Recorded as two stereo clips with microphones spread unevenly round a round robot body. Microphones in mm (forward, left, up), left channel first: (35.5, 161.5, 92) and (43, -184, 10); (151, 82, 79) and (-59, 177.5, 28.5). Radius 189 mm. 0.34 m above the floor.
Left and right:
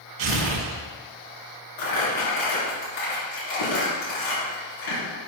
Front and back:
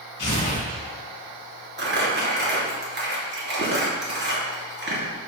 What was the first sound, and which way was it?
Tearing paper, 85° right.